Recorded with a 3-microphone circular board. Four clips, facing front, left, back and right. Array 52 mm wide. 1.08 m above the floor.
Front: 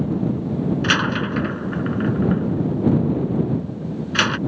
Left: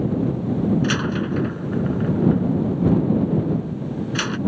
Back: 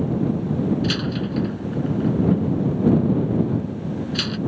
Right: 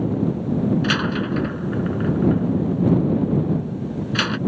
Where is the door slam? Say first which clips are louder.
Right 1 dB, front 5 dB; 10° right.